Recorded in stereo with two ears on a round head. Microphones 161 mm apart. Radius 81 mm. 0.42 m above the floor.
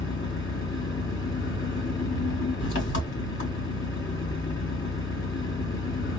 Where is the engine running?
70° left (ahead or behind), 3 m.